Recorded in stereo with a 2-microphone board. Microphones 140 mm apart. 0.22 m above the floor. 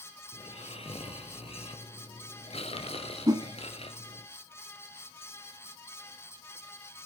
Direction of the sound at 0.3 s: 45° left (ahead or behind).